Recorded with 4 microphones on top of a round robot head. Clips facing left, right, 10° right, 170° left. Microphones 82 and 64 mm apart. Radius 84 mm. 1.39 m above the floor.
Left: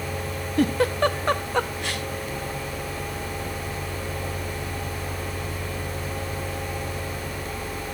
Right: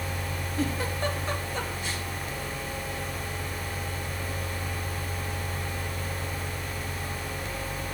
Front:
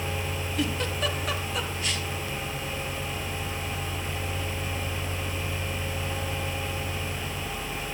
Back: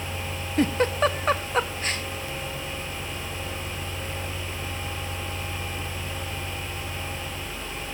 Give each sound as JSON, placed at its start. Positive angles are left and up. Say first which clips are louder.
{"t": 0.6, "sound": "a giggle", "louder": "left 9 dB, back 8 dB", "azimuth_deg": 120, "distance_m": 1.0}